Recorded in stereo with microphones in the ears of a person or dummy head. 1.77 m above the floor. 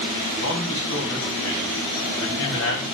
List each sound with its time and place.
0.4 s a man speaking: 75° left (ahead or behind), 3.5 m